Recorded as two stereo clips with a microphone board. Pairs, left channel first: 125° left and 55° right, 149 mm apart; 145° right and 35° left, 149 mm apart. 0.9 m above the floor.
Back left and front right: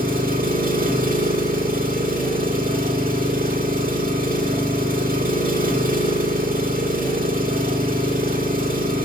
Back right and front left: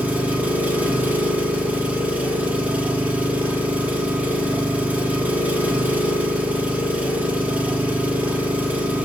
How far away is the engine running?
About 1.3 m.